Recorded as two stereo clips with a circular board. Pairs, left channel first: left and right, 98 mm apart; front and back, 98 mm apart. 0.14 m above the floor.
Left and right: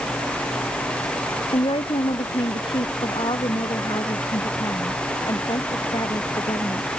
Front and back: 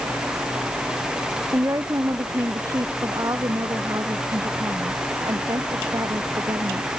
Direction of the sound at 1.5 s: 120° left.